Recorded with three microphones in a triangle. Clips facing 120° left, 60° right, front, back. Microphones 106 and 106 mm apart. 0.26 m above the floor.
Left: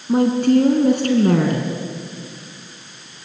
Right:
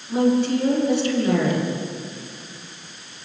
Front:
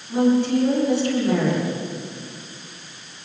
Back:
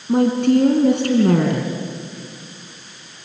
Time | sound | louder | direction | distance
0.1 | a woman speaking | left 4 dB, back 3 dB | 155° left | 3.5 m